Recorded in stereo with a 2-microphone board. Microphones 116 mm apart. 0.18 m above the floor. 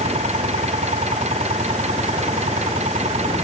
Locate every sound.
0.0 s an engine running: 70° right (ahead or behind)